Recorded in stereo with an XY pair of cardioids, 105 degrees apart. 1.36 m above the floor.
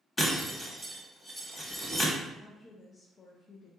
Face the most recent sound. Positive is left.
turn(degrees=35)